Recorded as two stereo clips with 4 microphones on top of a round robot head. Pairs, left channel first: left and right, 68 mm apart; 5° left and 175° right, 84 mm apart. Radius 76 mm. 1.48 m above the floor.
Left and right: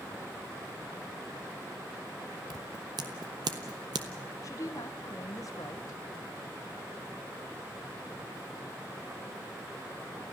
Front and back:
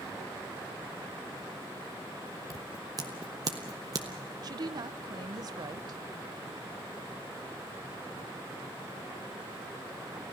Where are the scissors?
120° right, 0.7 m.